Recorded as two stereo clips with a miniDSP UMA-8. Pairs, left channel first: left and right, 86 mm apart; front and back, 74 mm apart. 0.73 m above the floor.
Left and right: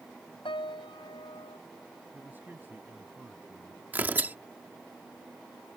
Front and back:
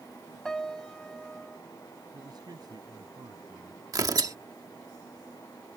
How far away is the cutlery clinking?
I don't hear cutlery clinking.